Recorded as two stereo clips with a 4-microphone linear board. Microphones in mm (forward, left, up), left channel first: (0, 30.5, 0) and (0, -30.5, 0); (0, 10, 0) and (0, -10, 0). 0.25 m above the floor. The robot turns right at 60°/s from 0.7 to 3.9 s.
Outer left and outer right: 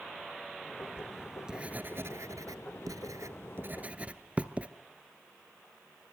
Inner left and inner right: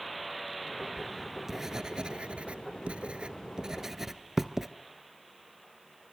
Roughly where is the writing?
Centre.